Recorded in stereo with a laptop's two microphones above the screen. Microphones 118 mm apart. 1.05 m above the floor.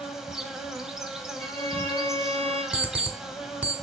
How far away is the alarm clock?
About 1.6 m.